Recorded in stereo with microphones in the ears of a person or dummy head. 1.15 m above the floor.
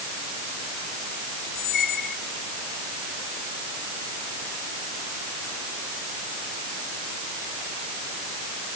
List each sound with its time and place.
1.6 s a squeak: 70° left (ahead or behind)